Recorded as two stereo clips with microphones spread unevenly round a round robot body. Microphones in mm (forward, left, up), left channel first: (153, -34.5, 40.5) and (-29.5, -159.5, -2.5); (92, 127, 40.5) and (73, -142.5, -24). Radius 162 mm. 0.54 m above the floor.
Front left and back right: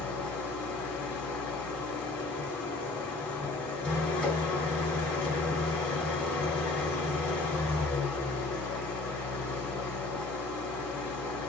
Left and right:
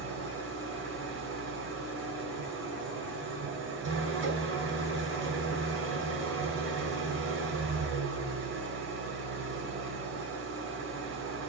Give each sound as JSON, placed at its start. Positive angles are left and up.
{"t": 0.0, "sound": "an engine running", "azimuth_deg": -55, "distance_m": 4.5}